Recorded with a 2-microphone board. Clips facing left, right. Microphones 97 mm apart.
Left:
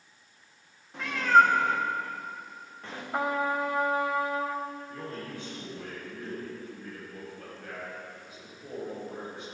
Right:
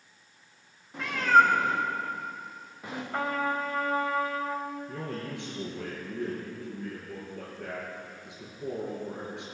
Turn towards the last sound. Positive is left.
turn(degrees=-75)  # may be behind; listen again after turning